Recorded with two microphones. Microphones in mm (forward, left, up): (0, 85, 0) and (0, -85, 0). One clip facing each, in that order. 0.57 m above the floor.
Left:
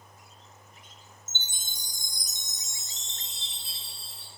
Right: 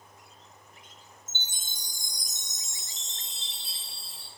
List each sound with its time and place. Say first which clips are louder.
1.3 s a chime: left 1 dB; 15° right (ahead or behind), 0.5 m